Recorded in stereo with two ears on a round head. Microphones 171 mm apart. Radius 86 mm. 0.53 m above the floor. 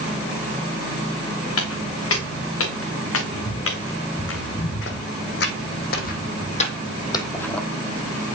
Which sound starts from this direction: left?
Footsteps, at 1.6 s.